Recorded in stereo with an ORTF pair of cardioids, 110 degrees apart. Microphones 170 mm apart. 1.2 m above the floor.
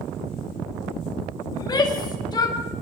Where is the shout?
25° left, 5 m.